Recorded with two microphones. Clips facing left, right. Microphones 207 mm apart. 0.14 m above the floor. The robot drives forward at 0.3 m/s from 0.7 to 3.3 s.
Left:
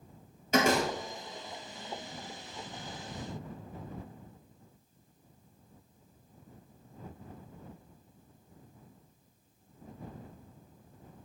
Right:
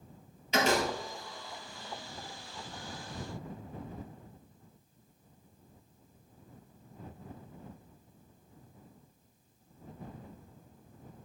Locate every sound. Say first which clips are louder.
0.5 s a door slam: left 2 dB; 50° left (ahead or behind), 1.9 m